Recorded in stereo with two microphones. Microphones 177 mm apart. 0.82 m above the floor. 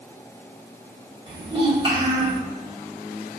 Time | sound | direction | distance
1.3 | a child speaking | 30° right (ahead or behind) | 1.7 m